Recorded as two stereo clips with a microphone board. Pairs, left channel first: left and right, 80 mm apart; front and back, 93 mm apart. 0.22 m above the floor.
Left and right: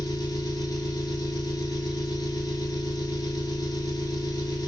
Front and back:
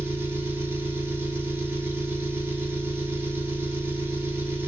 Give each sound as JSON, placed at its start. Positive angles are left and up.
{"t": 0.0, "sound": "an engine running", "azimuth_deg": 120, "distance_m": 0.8}